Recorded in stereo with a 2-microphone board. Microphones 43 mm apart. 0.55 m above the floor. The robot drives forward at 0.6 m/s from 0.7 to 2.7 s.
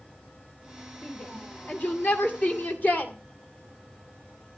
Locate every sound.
1.0 s a shout: 40° left (ahead or behind), 2 m; by 3.1 s 50° left (ahead or behind), 1.7 m